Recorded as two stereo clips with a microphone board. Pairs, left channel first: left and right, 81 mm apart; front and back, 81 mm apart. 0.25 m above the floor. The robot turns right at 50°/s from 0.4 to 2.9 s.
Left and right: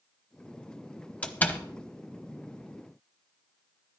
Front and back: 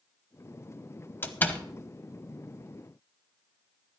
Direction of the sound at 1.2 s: 35° left.